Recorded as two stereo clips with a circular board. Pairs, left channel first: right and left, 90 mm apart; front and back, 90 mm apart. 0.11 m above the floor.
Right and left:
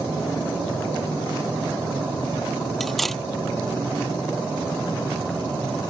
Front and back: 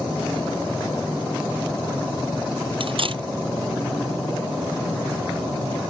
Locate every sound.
2.8 s cutlery clinking: 175° right